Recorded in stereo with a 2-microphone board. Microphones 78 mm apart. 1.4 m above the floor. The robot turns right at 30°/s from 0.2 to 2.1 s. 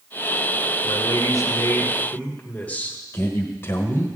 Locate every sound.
0.8 s a man speaking: 125° left, 1.5 m; by 3.0 s 160° left, 1.5 m
3.1 s a man speaking: 30° left (ahead or behind), 1.3 m